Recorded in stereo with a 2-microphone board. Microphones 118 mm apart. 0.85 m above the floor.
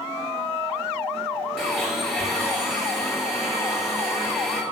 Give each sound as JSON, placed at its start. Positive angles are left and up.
{"t": 1.6, "sound": "a blender", "side_deg": 0, "distance_m": 5.0}